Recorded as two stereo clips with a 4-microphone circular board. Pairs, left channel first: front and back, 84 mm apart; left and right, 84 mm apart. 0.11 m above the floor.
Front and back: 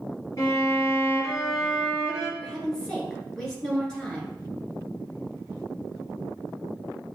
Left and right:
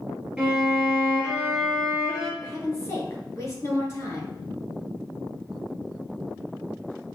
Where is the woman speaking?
75° left, 1.9 m.